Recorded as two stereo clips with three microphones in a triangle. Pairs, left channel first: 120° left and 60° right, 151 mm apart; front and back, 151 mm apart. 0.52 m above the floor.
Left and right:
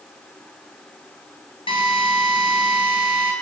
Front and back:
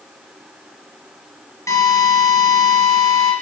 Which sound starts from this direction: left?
A drill, at 1.7 s.